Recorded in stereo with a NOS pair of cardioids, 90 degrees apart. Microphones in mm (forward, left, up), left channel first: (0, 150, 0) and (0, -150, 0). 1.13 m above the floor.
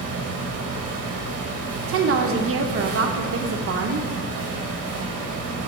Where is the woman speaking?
45° right, 1.0 m.